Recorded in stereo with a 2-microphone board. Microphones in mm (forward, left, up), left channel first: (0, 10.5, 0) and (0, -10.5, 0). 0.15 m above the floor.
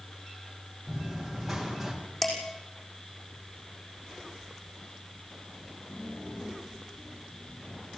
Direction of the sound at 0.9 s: 5° right (ahead or behind).